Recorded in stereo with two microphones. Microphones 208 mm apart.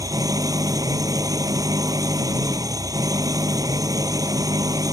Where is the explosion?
No explosion in this recording.